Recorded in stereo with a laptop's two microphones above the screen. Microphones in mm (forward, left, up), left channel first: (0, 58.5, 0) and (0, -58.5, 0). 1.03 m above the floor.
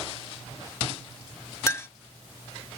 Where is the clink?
25° left (ahead or behind).